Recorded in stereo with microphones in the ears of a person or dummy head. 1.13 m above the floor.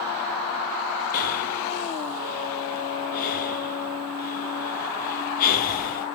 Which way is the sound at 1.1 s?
45° left (ahead or behind).